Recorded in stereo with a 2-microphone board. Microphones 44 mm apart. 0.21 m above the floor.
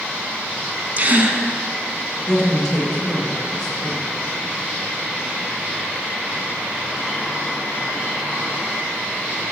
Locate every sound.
1.0 s a gasp: 40° right (ahead or behind), 0.6 m
2.3 s a woman speaking: 5° left (ahead or behind), 2.0 m